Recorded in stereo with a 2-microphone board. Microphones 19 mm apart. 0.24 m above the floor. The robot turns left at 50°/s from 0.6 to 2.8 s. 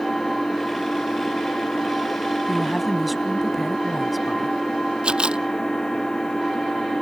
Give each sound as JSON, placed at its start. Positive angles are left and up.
{"t": 0.0, "sound": "an engine running", "azimuth_deg": 145}
{"t": 2.5, "sound": "a woman speaking", "side_deg": -10}
{"t": 5.0, "sound": "a camera shutter", "side_deg": -55}